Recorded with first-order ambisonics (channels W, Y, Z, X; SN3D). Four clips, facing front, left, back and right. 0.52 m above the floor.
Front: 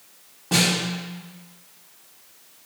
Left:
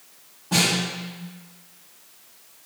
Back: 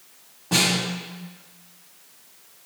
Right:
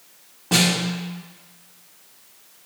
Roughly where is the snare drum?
Right.